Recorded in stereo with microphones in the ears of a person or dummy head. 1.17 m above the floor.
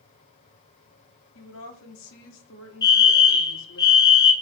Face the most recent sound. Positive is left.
turn(degrees=20)  # may be behind; listen again after turning